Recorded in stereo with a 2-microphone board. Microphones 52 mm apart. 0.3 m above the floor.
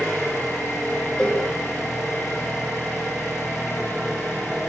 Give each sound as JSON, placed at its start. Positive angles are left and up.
{"t": 0.0, "sound": "an engine running", "side_deg": -10, "distance_m": 9.5}
{"t": 1.2, "sound": "a cowbell", "side_deg": 15, "distance_m": 4.5}